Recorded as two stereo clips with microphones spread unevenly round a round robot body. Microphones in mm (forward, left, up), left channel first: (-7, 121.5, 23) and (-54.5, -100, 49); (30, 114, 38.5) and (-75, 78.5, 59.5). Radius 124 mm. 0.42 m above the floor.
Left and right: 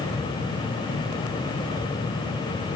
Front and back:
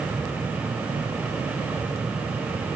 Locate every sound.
Only background noise.